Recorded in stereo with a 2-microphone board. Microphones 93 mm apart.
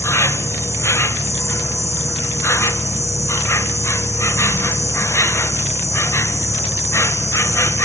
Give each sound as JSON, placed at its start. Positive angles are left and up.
{"t": 0.0, "sound": "an insect", "side_deg": 30, "distance_m": 1.5}